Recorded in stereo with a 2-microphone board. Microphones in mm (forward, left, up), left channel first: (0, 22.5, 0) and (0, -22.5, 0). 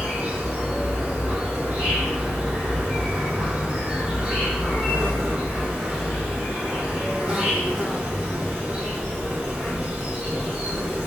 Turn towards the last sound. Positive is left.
turn(degrees=-25)  # may be behind; listen again after turning